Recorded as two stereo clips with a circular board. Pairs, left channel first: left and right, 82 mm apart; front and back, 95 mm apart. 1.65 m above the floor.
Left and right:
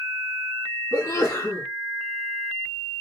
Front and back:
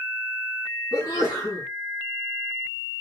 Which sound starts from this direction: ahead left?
A sneeze, at 0.9 s.